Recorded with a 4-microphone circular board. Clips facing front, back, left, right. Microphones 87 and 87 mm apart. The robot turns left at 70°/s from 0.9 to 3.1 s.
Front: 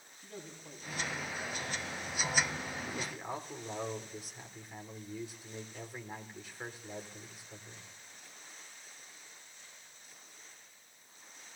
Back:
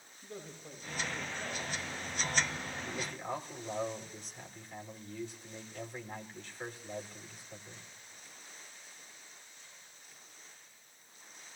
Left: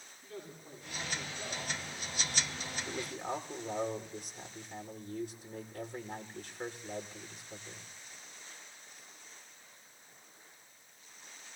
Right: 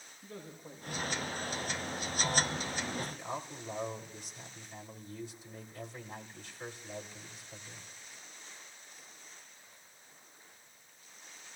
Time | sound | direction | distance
0.2 | a man speaking | 140° right | 4 m
2.9 | a man speaking | 95° left | 2 m